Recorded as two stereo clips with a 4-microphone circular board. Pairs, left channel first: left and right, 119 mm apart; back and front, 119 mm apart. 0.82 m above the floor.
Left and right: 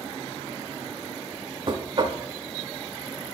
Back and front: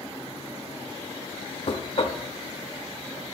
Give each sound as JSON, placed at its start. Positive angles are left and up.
{"t": 1.7, "sound": "knocking", "azimuth_deg": -140, "distance_m": 0.6}